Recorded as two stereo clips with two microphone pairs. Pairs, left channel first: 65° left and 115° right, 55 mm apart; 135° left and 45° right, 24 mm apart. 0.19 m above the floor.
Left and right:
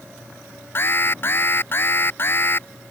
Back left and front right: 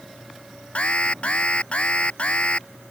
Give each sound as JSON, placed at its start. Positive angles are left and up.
{"t": 0.8, "sound": "an alarm", "azimuth_deg": 110}